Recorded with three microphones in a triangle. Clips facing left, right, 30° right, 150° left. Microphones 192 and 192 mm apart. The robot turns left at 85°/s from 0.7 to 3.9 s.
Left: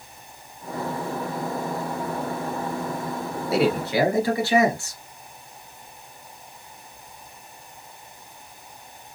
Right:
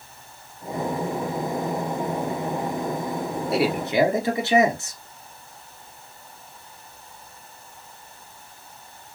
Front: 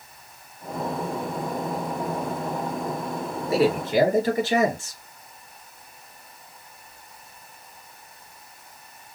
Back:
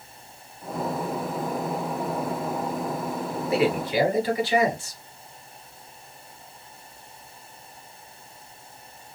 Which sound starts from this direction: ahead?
A man speaking, at 3.5 s.